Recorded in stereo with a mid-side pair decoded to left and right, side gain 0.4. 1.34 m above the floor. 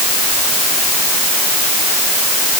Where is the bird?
No bird in this recording.